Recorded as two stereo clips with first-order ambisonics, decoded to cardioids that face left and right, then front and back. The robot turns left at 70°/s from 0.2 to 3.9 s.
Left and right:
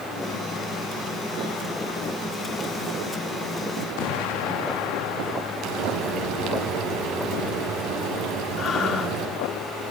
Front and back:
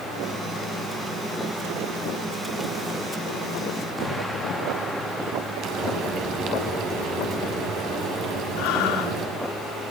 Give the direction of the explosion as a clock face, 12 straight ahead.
9 o'clock.